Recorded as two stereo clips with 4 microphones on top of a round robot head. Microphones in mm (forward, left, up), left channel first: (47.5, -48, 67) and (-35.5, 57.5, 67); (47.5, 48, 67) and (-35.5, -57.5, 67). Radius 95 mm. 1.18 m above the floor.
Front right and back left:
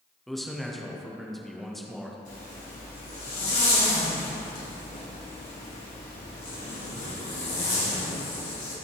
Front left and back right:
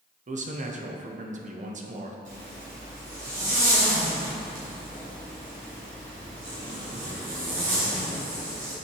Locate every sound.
0.3 s a man speaking: 140° right, 0.9 m
2.2 s a zipper: 90° right, 2 m